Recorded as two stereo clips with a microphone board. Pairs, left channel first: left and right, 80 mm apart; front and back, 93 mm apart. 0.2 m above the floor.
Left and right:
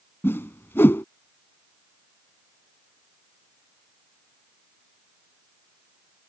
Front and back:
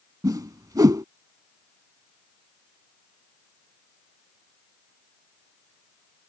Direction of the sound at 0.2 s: 145° left.